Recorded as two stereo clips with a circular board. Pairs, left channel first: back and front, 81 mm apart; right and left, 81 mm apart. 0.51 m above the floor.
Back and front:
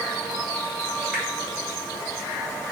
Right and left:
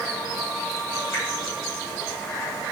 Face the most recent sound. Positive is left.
turn(degrees=-110)